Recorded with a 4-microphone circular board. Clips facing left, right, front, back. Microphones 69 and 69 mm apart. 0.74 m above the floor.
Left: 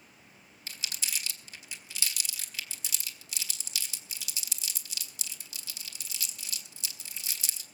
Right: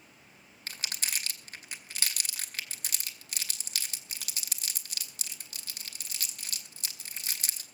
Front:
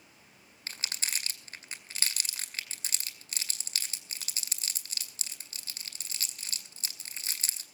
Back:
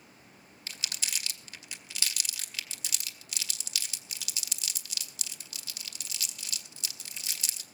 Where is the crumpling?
55° right, 2 m.